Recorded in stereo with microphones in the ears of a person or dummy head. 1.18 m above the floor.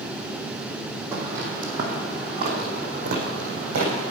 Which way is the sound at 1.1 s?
10° right (ahead or behind).